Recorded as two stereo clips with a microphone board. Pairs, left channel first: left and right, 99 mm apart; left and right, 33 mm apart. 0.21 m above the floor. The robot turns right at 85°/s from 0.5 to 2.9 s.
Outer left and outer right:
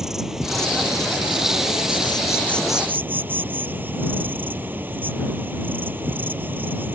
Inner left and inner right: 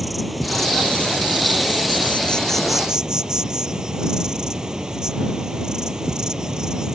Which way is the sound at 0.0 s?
5° right.